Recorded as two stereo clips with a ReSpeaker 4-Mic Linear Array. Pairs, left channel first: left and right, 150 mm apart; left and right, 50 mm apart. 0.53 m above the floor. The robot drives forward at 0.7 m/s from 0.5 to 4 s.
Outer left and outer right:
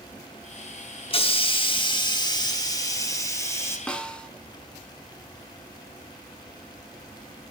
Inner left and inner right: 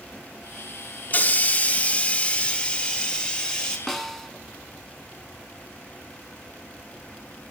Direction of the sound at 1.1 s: 35° left (ahead or behind).